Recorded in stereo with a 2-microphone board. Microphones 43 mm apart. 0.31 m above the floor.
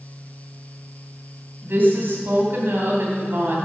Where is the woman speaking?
55° right (ahead or behind), 2.0 m.